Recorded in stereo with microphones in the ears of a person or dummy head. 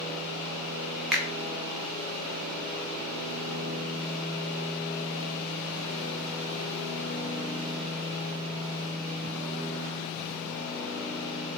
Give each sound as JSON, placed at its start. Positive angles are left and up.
{"t": 1.1, "sound": "a finger snap", "side_deg": 0, "distance_m": 0.5}